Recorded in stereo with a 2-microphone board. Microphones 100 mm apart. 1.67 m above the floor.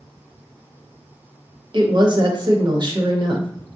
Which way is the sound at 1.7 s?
45° right (ahead or behind).